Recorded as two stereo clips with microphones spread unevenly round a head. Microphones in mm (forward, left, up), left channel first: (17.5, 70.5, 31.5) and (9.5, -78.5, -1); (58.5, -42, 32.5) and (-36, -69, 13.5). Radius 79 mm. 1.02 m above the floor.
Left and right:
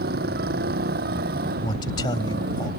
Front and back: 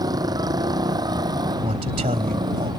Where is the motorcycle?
115° right; by 2.8 s 120° right.